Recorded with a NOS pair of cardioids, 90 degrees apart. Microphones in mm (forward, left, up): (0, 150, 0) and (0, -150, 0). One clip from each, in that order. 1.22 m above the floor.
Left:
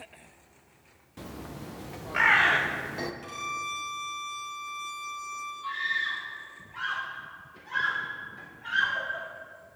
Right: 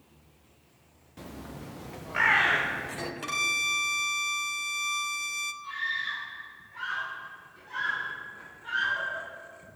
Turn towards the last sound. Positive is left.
turn(degrees=60)